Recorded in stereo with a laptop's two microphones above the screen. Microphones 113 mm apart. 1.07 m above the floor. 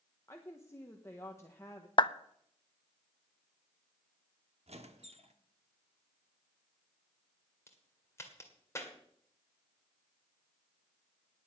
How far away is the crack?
About 1.8 m.